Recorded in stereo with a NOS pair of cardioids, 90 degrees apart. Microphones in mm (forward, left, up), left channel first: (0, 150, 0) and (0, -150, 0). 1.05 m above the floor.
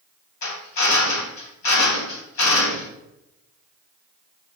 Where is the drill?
65° left, 2.5 m.